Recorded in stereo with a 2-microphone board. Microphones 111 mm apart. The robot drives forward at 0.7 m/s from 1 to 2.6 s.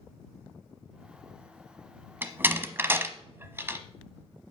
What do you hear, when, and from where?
2.2 s a door slam: 15° right (ahead or behind), 0.9 m; by 3.8 s 20° right (ahead or behind), 0.8 m